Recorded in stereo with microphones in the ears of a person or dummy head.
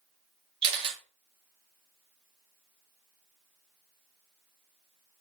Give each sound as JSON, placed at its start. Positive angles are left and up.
{"t": 0.6, "sound": "a camera shutter", "side_deg": -25, "distance_m": 0.6}